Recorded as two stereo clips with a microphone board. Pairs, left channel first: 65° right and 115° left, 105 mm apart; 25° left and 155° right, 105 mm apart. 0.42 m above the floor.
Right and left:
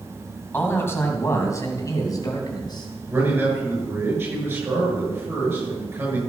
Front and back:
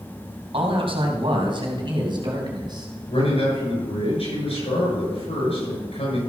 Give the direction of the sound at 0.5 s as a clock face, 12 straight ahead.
5 o'clock.